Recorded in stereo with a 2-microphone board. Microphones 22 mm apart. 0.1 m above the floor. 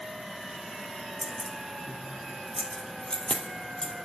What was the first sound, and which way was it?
Keys jangling, 5° right (ahead or behind).